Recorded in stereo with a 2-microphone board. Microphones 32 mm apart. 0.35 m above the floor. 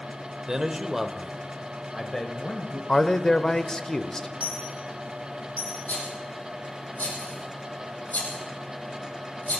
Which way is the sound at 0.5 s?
25° right (ahead or behind).